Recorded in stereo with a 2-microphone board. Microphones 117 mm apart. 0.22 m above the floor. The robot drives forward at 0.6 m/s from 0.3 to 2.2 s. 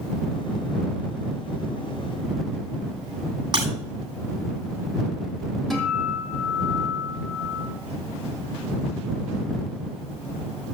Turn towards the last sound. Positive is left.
turn(degrees=0)  # may be behind; listen again after turning